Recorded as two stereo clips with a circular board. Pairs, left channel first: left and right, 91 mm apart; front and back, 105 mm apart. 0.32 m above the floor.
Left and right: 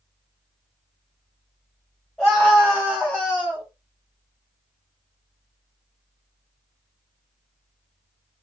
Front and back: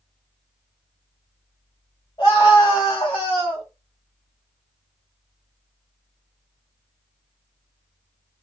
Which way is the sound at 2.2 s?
5° left.